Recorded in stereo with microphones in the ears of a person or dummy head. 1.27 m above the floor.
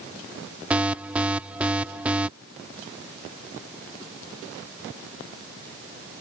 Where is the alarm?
10° right (ahead or behind).